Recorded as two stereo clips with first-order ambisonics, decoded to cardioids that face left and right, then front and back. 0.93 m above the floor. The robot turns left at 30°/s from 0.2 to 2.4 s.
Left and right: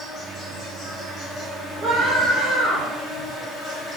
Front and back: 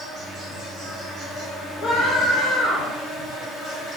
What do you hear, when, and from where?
0.0 s an insect: 150° left, 1.7 m; by 4.0 s 85° left, 1.7 m
1.8 s a scream: 25° right, 1.2 m; by 2.9 s 45° right, 1.2 m